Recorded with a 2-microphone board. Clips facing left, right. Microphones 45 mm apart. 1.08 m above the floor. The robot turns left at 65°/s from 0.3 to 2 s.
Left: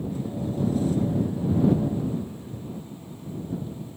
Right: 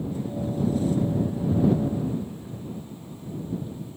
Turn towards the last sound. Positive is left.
No sound to turn to.